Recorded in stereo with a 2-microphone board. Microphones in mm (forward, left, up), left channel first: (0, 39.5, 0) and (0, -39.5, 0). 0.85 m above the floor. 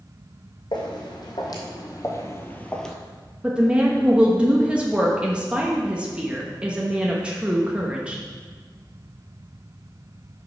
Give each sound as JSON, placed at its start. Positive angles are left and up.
{"t": 0.7, "sound": "footsteps", "side_deg": 65, "distance_m": 2.5}
{"t": 3.4, "sound": "a woman speaking", "side_deg": -15, "distance_m": 0.9}